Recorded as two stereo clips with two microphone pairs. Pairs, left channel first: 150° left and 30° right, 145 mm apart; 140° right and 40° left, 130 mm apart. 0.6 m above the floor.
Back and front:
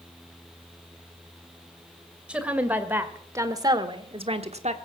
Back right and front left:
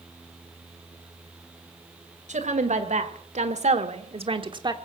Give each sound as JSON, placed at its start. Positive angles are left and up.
{"t": 2.3, "sound": "a woman speaking", "azimuth_deg": 50, "distance_m": 2.5}